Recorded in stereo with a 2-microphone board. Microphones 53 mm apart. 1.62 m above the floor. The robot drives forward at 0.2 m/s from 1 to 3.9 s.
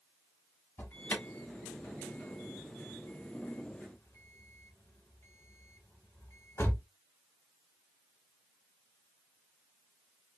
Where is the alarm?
45° left (ahead or behind), 0.9 m; by 6.8 s 55° left (ahead or behind), 0.8 m.